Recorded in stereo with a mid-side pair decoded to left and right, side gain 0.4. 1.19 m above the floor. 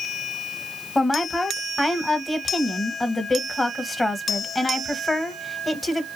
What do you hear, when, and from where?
0.9 s a woman speaking: 15° left, 1.0 m